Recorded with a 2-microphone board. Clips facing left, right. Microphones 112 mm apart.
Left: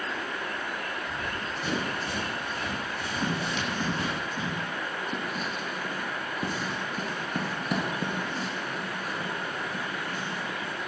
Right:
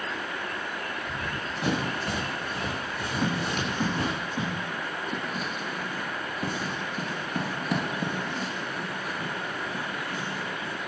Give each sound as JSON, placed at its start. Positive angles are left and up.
{"t": 1.1, "sound": "running footsteps", "side_deg": -75, "distance_m": 5.0}
{"t": 3.2, "sound": "tapping", "side_deg": -15, "distance_m": 5.5}
{"t": 5.1, "sound": "writing", "side_deg": 5, "distance_m": 2.5}